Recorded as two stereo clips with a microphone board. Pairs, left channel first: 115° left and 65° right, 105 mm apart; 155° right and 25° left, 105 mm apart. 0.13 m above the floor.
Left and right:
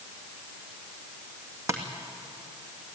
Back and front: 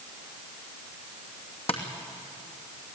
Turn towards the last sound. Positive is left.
turn(degrees=-130)